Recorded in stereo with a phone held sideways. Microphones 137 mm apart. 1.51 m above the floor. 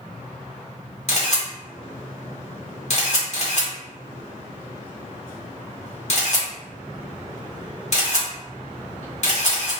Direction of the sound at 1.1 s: 55° left (ahead or behind).